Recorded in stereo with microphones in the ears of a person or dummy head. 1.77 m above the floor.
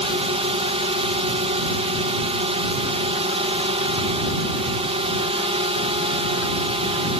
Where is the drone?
25° right (ahead or behind).